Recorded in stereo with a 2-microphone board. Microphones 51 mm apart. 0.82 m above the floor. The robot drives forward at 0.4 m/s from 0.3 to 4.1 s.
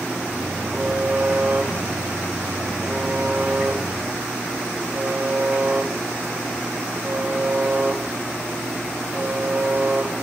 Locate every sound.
0.7 s a buzzer: 50° right (ahead or behind), 7 m; by 10.1 s 40° right (ahead or behind), 8 m